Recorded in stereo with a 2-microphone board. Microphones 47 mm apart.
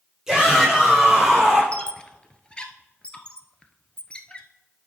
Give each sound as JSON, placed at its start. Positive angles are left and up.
{"t": 0.3, "sound": "a shout", "side_deg": -10, "distance_m": 5.0}
{"t": 1.7, "sound": "a squeak", "side_deg": 25, "distance_m": 0.9}